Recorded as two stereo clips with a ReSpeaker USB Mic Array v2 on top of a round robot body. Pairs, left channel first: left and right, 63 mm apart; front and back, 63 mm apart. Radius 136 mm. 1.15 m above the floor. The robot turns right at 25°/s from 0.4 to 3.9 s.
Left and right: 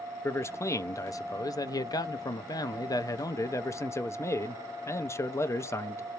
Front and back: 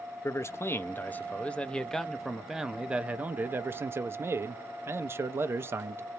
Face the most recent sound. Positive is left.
turn(degrees=130)